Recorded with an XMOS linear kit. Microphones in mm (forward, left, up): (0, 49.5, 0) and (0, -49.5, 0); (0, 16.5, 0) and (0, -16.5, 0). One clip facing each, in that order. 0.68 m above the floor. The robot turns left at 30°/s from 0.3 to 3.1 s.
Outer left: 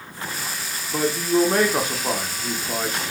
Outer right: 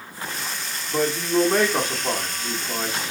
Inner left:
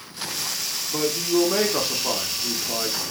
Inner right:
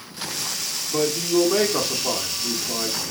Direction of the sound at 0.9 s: Centre (ahead or behind).